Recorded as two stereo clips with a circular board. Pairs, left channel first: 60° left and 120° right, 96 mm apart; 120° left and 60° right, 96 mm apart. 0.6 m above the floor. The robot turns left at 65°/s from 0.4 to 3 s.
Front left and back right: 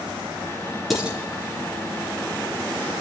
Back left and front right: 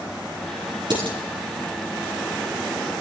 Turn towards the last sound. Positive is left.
turn(degrees=-165)